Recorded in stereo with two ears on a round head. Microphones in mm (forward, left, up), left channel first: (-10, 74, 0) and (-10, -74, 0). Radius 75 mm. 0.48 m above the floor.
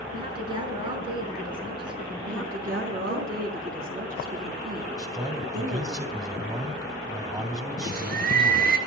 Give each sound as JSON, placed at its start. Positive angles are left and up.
{"t": 0.1, "sound": "a woman speaking", "side_deg": -30, "distance_m": 5.0}
{"t": 2.2, "sound": "a woman speaking", "side_deg": -50, "distance_m": 4.5}
{"t": 5.0, "sound": "a man speaking", "side_deg": -20, "distance_m": 2.5}
{"t": 7.8, "sound": "a bird", "side_deg": -60, "distance_m": 2.5}